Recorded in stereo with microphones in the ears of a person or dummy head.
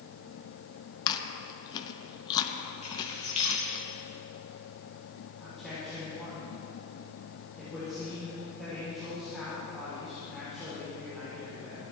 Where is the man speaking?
10° left (ahead or behind), 4 m.